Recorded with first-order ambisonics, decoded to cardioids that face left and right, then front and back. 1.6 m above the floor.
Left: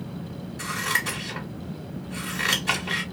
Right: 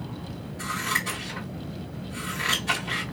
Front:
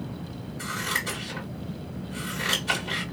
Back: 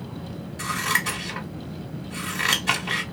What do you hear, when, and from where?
0.6 s scissors: 155° left, 2 m